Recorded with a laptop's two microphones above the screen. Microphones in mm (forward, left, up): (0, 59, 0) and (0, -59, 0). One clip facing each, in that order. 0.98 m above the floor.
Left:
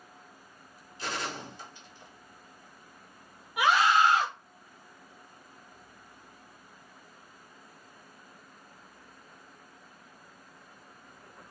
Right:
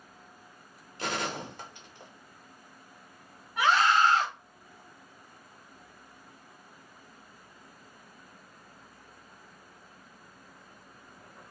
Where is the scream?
10° left (ahead or behind), 1.5 m.